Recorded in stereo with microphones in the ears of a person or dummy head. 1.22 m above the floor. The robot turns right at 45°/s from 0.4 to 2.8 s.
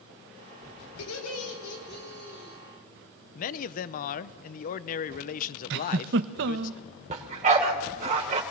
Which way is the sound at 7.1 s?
35° right (ahead or behind).